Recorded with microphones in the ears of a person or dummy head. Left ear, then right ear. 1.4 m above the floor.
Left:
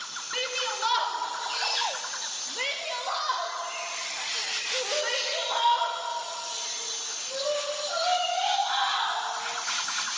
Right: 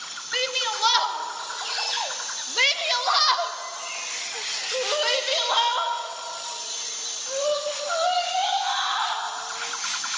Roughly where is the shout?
Right.